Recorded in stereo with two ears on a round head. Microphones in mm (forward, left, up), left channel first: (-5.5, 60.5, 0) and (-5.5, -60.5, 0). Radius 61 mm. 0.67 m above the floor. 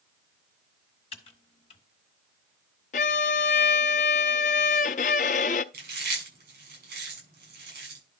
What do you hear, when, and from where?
1.1 s typing on a keyboard: 45° left (ahead or behind), 1.7 m
2.9 s a violin: 60° left (ahead or behind), 0.6 m
5.7 s chewing: 70° right (ahead or behind), 7.5 m